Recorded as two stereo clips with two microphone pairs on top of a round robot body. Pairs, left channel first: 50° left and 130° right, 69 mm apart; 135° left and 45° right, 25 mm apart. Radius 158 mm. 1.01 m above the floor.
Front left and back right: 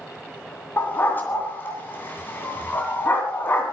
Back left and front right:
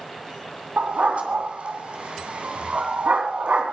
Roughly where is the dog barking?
Ahead.